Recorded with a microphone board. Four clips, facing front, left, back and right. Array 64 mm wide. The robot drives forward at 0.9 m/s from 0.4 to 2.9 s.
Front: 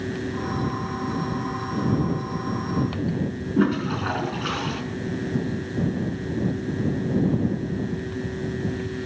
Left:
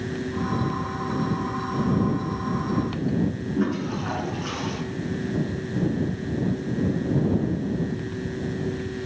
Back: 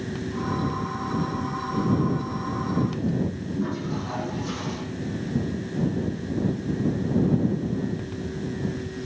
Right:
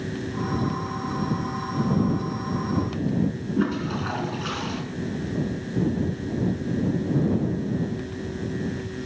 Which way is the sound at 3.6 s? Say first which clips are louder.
Right 1 dB, front 8 dB; 15° right.